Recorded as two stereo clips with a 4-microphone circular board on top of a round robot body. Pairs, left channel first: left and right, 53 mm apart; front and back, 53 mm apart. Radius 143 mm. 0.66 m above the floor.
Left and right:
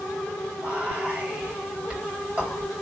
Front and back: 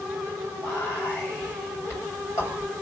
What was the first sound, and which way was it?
Whispering, 25° right.